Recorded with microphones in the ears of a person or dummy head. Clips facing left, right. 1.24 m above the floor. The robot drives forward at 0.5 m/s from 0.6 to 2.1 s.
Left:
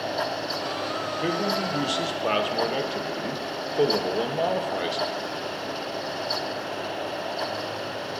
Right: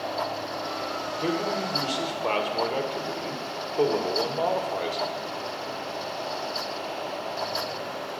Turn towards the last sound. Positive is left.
turn(degrees=15)  # may be behind; listen again after turning